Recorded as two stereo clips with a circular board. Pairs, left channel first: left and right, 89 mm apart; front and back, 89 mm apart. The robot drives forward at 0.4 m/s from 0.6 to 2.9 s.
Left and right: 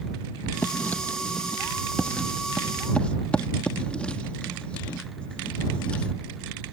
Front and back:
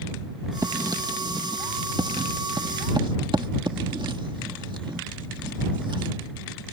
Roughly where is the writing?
Behind left.